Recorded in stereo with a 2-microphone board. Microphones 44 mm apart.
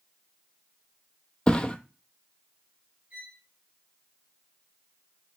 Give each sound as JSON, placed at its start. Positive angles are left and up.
{"t": 1.5, "sound": "a thud", "side_deg": 25, "distance_m": 0.5}
{"t": 3.1, "sound": "a violin", "side_deg": -30, "distance_m": 2.5}